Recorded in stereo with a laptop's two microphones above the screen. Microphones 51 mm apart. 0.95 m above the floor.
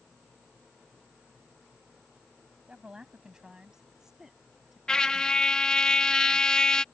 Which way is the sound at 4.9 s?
15° left (ahead or behind).